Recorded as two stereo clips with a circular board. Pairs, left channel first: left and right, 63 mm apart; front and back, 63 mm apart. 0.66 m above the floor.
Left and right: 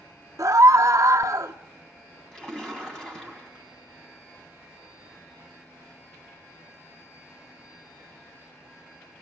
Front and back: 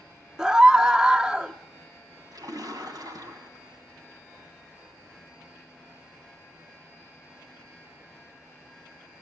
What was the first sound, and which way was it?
A scream, 105° right.